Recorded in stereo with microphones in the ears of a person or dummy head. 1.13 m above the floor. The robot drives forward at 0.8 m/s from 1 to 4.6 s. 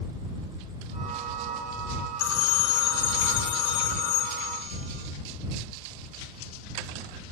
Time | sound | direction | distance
2.2 | a phone ringing | 80° left | 1.8 m